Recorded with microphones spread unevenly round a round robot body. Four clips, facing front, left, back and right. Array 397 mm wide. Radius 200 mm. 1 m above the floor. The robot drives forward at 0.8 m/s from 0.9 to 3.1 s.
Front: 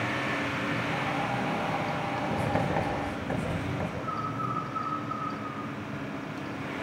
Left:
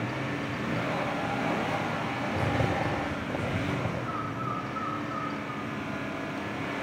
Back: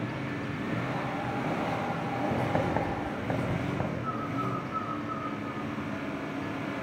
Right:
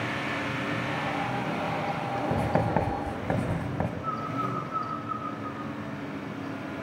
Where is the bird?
125° right, 9 m.